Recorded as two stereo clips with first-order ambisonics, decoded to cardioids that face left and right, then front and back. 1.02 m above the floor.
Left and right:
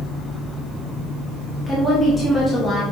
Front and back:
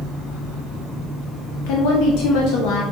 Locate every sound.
1.7 s a woman speaking: 5° left, 1.1 m